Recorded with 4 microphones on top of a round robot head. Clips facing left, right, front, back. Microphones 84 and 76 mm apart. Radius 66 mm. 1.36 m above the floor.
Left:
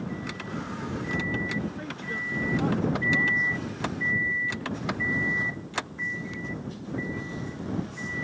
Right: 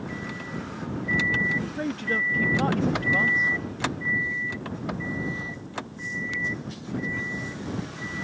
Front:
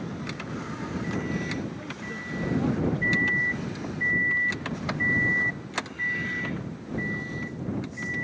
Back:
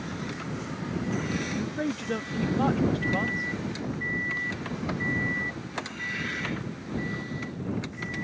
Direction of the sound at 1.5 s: 140° right.